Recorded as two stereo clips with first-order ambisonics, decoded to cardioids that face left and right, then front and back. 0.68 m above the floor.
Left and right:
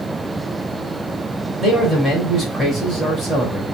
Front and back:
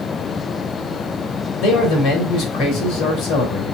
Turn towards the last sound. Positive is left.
turn(degrees=-5)